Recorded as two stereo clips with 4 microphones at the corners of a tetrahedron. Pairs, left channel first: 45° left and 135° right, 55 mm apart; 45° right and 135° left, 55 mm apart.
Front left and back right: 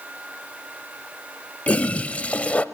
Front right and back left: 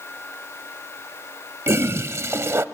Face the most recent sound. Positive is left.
turn(degrees=105)